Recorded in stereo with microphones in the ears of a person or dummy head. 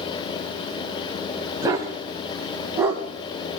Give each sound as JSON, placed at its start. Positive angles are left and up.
{"t": 1.6, "sound": "a dog barking", "side_deg": -20, "distance_m": 3.5}